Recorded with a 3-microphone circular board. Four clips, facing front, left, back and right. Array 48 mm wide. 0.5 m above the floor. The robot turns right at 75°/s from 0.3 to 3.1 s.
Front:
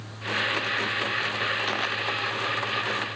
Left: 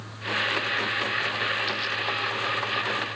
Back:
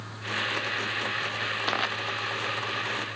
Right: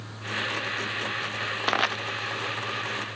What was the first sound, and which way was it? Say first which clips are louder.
Crushing: right 4 dB, even; 105° right.